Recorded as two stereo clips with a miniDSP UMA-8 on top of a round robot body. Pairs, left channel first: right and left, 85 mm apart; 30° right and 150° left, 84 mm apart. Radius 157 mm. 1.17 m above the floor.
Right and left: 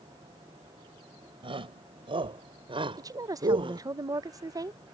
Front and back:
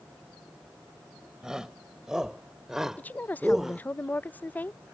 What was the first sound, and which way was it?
A shout, 65° left.